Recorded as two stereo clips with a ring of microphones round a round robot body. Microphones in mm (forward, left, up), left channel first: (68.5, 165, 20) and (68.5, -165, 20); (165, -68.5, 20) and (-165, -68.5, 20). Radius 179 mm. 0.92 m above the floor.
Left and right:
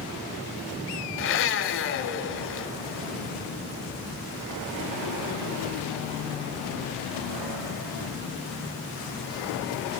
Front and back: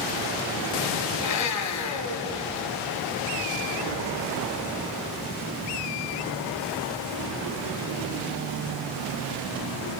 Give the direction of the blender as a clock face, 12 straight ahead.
11 o'clock.